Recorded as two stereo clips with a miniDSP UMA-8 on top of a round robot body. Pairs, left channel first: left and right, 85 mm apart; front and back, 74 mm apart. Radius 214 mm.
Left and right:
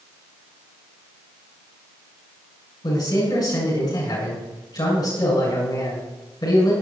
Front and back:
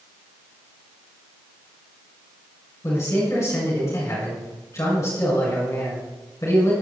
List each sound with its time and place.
2.8 s a man speaking: 50° left, 7.5 m